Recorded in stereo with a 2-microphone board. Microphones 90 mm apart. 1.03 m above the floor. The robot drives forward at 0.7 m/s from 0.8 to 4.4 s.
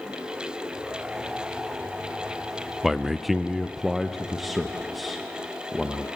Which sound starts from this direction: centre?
A man speaking, at 2.8 s.